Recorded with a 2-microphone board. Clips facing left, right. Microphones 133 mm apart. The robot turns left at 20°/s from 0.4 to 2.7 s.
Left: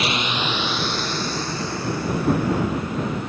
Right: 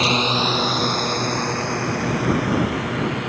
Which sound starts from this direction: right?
A drone, at 0.0 s.